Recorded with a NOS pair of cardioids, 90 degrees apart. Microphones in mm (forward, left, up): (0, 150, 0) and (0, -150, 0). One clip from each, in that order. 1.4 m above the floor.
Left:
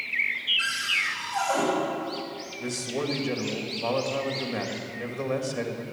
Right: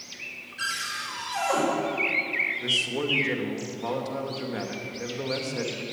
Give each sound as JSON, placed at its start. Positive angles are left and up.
{"t": 0.6, "sound": "a cupboard door", "azimuth_deg": -70, "distance_m": 5.5}
{"t": 2.6, "sound": "a man speaking", "azimuth_deg": 0, "distance_m": 2.0}